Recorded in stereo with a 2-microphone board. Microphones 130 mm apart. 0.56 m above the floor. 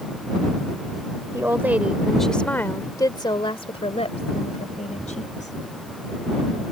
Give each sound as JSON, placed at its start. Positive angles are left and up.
{"t": 1.3, "sound": "a woman speaking", "side_deg": -20}